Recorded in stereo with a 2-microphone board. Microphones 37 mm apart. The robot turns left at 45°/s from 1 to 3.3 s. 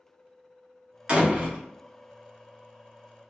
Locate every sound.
1.1 s a door slam: 25° right (ahead or behind), 0.9 m; by 1.6 s 45° right (ahead or behind), 0.9 m